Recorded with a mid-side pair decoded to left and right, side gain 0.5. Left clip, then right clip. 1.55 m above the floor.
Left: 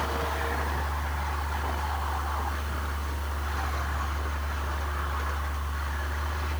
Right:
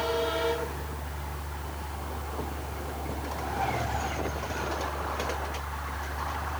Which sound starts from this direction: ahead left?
A fan, at 0.0 s.